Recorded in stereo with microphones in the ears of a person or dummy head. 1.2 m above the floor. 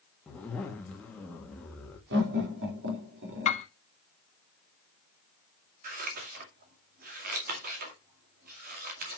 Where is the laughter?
60° right (ahead or behind), 4 m.